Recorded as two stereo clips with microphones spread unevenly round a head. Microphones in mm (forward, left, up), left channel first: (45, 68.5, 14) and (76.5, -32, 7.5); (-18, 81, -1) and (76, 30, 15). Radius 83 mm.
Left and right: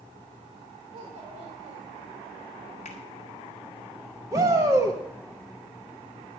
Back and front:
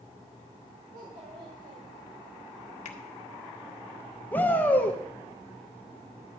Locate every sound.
0.9 s a child speaking: 70° right, 1.9 m
2.9 s a finger snap: 155° left, 1.4 m
4.3 s a shout: 135° right, 1.0 m